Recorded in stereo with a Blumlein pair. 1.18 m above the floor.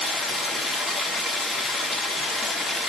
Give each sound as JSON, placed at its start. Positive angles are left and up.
{"t": 0.0, "sound": "running water", "azimuth_deg": 15, "distance_m": 2.5}